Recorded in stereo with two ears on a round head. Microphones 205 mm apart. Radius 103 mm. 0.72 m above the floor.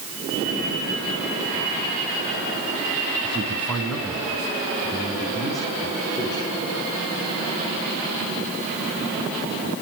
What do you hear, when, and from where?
3.2 s a man speaking: 5° left (ahead or behind), 4 m; by 6.5 s 20° left (ahead or behind), 8 m